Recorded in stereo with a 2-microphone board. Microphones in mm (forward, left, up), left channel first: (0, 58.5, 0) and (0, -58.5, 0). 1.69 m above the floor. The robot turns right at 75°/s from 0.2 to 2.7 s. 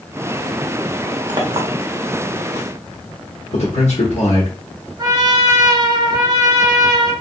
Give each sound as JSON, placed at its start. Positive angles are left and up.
{"t": 1.3, "sound": "a clink", "side_deg": -35, "distance_m": 0.7}
{"t": 3.5, "sound": "a man speaking", "side_deg": 75, "distance_m": 0.9}
{"t": 5.0, "sound": "a trumpet", "side_deg": -35, "distance_m": 0.5}